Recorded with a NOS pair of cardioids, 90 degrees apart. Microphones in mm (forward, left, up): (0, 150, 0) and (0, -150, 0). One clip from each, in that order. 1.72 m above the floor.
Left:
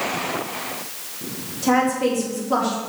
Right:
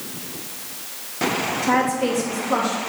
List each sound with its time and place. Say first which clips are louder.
1.6 s a woman speaking: left 3 dB; 5° right, 3 m